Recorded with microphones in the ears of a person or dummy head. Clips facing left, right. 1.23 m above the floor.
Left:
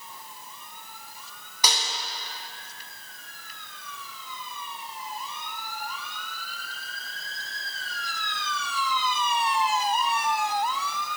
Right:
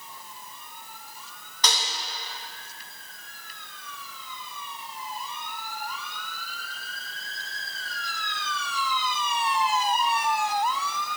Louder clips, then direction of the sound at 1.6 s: Even; 10° left (ahead or behind).